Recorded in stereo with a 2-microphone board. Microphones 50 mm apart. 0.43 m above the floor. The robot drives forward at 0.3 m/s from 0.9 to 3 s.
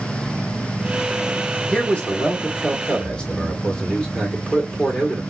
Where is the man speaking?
25° left (ahead or behind), 1.4 m; by 5.2 s 20° left (ahead or behind), 1.4 m.